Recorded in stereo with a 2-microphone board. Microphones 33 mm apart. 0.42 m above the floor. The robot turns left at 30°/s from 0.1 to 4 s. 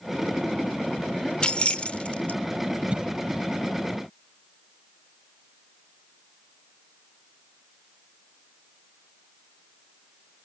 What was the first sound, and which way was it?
Keys jangling, 30° left (ahead or behind).